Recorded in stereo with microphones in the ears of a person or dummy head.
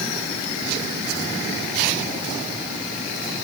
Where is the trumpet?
No trumpet in this recording.